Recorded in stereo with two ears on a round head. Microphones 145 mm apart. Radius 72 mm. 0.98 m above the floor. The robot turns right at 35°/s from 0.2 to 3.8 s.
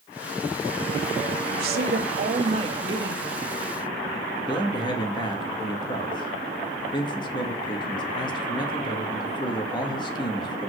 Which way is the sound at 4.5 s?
30° left (ahead or behind).